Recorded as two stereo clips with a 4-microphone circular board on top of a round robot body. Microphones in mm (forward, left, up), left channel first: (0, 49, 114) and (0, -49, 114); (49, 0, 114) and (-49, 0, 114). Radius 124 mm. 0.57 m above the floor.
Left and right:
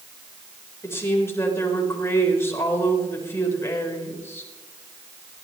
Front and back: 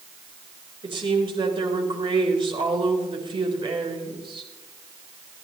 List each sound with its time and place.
0.8 s a woman speaking: 150° left, 4 m